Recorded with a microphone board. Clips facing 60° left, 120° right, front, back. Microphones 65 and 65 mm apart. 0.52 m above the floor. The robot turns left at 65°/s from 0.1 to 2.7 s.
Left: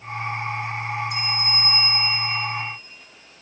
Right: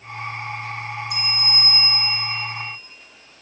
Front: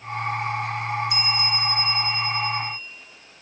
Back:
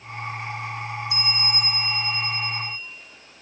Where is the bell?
115° right, 1.0 m; by 2.8 s 140° left, 1.0 m.